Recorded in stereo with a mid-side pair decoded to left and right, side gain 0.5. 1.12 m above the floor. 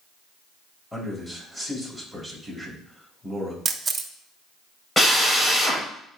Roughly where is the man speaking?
Ahead.